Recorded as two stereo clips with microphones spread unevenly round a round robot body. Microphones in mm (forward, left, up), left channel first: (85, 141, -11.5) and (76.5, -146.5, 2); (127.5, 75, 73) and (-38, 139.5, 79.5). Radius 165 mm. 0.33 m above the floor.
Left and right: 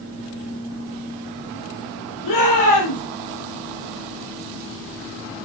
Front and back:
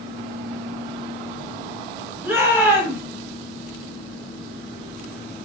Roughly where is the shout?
Left.